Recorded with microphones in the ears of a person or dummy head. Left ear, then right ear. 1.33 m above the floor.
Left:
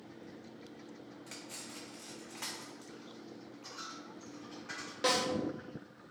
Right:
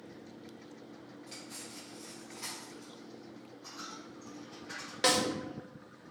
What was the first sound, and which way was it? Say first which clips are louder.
Cutlery clinking: even; 35° left (ahead or behind).